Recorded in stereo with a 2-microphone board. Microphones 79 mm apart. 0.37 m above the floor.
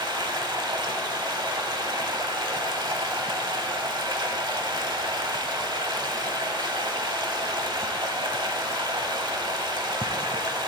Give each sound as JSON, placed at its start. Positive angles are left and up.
{"t": 0.0, "sound": "running water", "side_deg": -70, "distance_m": 0.8}